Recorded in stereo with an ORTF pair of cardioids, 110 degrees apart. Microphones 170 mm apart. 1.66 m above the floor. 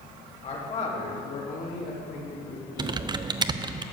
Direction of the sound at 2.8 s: 25° right.